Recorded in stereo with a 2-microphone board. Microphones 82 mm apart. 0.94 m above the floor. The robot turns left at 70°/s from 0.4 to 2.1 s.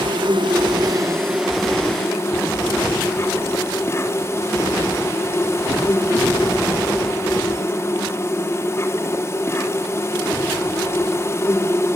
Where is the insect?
95° right, 3.5 m; by 12.0 s 150° left, 3.5 m.